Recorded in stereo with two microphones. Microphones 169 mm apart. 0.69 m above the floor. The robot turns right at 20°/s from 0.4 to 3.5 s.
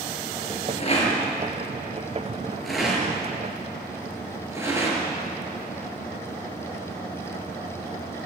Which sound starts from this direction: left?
A rattle, at 0.8 s.